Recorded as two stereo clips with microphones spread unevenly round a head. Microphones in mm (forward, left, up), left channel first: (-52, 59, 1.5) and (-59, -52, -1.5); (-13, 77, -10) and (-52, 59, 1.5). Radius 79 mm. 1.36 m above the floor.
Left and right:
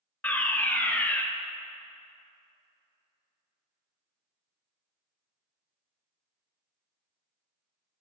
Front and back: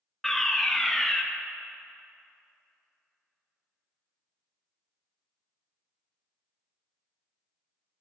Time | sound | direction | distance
0.2 | a fire alarm | 25° left | 0.7 m